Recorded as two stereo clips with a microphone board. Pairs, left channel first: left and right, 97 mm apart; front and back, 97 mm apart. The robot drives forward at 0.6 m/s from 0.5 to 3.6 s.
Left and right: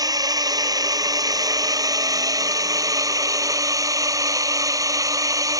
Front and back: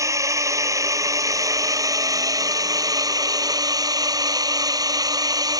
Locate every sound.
0.0 s a drone: 130° right; by 5.6 s 135° right